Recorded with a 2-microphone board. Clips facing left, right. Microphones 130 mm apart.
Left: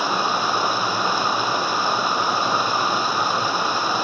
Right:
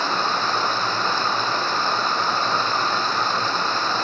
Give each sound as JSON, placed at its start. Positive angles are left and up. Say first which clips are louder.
{"t": 0.0, "sound": "running water", "louder": "left 1 dB", "side_deg": 10, "distance_m": 0.9}